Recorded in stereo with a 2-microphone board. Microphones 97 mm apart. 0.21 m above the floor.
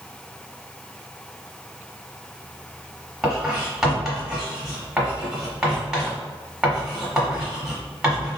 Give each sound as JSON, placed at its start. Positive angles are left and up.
{"t": 3.2, "sound": "writing", "side_deg": -10, "distance_m": 1.2}